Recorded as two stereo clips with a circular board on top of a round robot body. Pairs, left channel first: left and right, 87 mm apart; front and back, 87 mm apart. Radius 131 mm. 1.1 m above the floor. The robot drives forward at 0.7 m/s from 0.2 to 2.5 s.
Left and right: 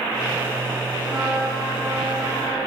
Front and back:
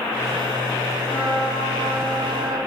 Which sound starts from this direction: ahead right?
A trumpet, at 1.1 s.